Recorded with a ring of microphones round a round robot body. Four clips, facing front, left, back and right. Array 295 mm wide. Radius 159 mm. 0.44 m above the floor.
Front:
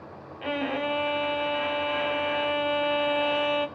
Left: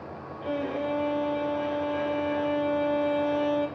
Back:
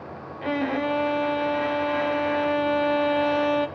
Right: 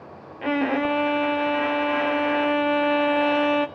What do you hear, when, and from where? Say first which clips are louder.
0.4 s a violin: right 7 dB, back 3 dB; 100° right, 0.5 m